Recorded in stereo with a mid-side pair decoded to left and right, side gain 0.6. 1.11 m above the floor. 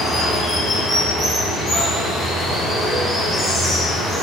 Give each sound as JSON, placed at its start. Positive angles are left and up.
{"t": 0.0, "sound": "running water", "azimuth_deg": 30, "distance_m": 1.8}